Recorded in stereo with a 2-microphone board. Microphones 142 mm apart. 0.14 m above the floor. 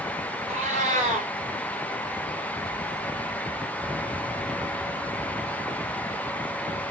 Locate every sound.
0.5 s a cat meowing: 55° right (ahead or behind), 2.5 m